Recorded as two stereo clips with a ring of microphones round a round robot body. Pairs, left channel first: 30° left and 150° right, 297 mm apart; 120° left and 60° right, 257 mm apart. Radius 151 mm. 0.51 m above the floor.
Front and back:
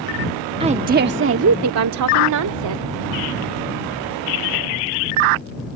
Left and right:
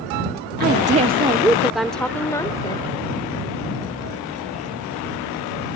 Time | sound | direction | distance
0.6 | a woman speaking | 85° right | ?